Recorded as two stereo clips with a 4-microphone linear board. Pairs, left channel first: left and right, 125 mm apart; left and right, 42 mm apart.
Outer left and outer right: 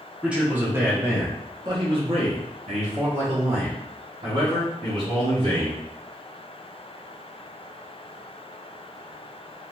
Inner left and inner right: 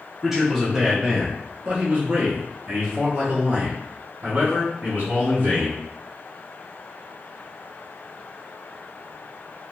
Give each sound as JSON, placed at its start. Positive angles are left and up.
{"t": 0.2, "sound": "a man speaking", "side_deg": -10, "distance_m": 1.4}